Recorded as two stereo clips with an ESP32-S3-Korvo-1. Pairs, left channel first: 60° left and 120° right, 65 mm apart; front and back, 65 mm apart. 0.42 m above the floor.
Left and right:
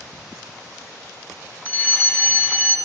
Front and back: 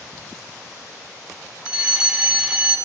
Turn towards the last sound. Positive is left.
turn(degrees=110)